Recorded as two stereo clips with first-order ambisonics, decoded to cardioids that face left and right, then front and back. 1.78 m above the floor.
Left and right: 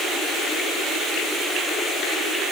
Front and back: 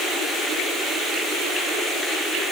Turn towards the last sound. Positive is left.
No sound to turn to.